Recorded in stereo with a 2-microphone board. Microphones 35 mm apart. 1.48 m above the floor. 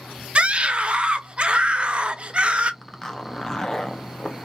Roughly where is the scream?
Right.